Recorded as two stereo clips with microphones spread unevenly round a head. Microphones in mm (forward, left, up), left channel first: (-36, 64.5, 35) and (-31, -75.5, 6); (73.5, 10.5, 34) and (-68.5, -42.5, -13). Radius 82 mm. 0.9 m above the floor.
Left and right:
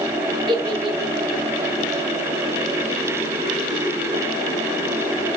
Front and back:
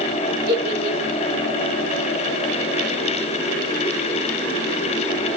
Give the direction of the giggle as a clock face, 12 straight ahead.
5 o'clock.